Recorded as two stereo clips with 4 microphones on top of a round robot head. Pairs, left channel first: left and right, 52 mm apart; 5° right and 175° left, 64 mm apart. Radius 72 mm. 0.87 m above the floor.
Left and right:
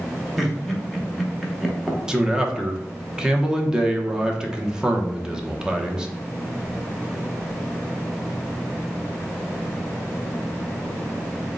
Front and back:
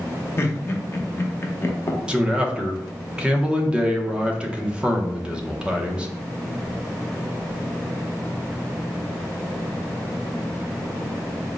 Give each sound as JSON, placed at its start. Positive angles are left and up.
{"t": 0.4, "sound": "laughter", "azimuth_deg": 0, "distance_m": 1.0}
{"t": 2.1, "sound": "a man speaking", "azimuth_deg": -140, "distance_m": 0.7}